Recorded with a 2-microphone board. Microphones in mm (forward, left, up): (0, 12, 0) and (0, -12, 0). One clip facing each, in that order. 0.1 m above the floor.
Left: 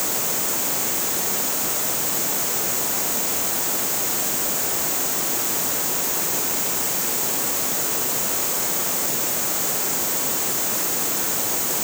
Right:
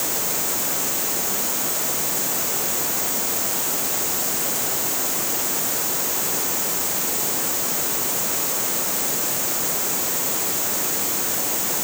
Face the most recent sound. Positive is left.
No sound to turn to.